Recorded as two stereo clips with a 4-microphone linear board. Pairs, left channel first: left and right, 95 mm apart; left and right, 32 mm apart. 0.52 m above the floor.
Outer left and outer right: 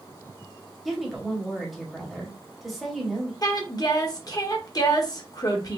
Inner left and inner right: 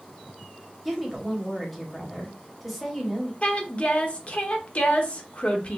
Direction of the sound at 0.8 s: Centre (ahead or behind).